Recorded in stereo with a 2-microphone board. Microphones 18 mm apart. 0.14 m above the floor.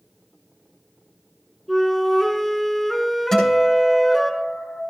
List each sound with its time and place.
1.7 s a flute: 5° left (ahead or behind), 1.5 m
3.3 s a guitar: 25° left (ahead or behind), 9 m